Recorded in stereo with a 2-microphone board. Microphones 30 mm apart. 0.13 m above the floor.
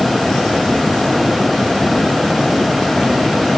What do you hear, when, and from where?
Only background noise.